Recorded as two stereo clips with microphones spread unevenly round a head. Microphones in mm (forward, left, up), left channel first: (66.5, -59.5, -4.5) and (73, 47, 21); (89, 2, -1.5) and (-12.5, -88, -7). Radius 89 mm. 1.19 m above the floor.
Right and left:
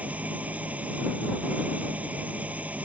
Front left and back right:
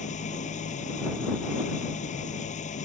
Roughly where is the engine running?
Ahead.